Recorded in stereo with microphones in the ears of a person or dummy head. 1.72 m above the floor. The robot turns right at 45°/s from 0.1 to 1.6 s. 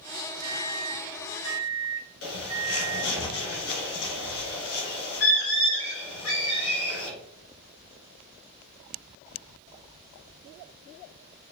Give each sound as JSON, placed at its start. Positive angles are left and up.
{"t": 0.4, "sound": "a microwave", "azimuth_deg": -125, "distance_m": 0.6}
{"t": 2.2, "sound": "a bird", "side_deg": 70, "distance_m": 1.9}